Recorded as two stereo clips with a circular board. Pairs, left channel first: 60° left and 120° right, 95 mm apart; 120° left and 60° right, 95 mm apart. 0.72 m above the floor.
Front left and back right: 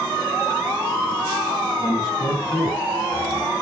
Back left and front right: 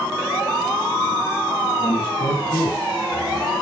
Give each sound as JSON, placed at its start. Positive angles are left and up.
{"t": 1.8, "sound": "a man speaking", "azimuth_deg": 100, "distance_m": 5.5}